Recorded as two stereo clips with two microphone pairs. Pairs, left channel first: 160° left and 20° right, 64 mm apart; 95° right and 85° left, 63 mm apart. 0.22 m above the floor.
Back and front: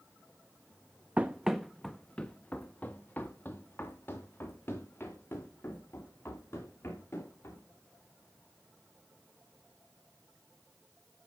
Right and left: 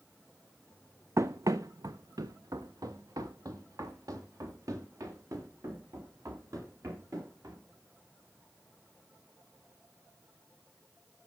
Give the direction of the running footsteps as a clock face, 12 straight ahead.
10 o'clock.